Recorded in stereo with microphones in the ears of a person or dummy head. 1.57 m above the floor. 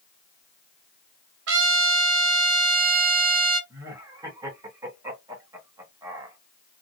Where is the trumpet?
70° right (ahead or behind), 0.9 m.